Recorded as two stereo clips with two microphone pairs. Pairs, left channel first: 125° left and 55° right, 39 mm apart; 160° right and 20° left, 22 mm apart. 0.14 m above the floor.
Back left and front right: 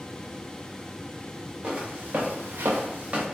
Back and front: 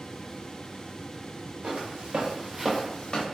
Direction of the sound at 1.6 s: 5° left.